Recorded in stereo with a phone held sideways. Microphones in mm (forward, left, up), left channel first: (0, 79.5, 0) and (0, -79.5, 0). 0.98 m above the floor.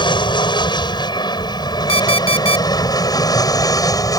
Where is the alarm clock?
40° left (ahead or behind).